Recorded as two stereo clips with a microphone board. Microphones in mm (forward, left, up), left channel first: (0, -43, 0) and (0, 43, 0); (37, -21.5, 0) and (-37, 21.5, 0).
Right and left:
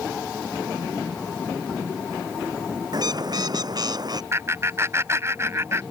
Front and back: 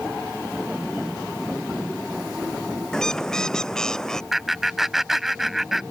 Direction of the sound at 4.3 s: 65° left.